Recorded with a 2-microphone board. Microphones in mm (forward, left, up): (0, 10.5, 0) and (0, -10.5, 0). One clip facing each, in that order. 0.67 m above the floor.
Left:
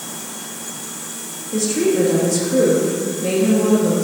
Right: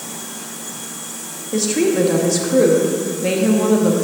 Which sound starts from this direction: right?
A woman speaking, at 1.5 s.